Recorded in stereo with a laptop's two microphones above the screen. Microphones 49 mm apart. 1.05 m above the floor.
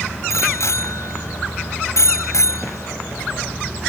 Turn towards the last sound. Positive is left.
turn(degrees=75)  # may be behind; listen again after turning